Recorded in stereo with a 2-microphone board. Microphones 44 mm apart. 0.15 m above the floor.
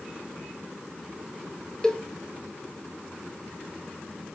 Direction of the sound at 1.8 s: 15° left (ahead or behind).